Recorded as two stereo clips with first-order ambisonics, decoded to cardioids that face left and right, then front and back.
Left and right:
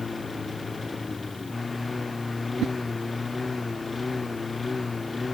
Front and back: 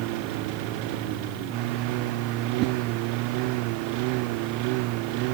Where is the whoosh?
140° right.